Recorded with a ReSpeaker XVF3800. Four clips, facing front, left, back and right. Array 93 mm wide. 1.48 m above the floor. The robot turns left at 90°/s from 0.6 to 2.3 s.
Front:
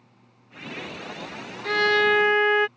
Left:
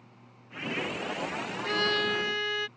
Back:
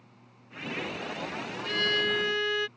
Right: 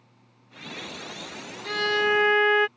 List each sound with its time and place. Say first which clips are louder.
1.6 s a violin: right 5 dB, front 9 dB; 15° left; by 2.7 s 45° right